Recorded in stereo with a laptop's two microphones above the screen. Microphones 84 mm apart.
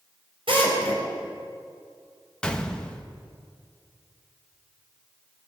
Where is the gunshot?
10° left (ahead or behind), 0.7 m.